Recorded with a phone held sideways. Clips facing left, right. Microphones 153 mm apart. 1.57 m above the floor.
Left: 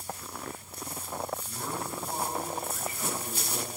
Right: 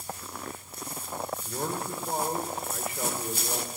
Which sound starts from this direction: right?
A man speaking, at 1.4 s.